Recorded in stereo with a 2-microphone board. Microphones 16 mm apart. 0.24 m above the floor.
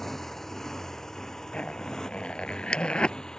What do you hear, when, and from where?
0.0 s a motorcycle: 15° left (ahead or behind); by 3.4 s 40° left (ahead or behind)
1.5 s a zipper: 75° left (ahead or behind)